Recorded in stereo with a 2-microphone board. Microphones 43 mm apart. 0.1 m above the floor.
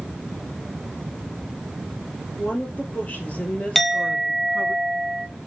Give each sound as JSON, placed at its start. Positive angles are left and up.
{"t": 2.4, "sound": "a woman speaking", "side_deg": 45, "distance_m": 3.0}
{"t": 3.8, "sound": "a clink", "side_deg": 0, "distance_m": 0.8}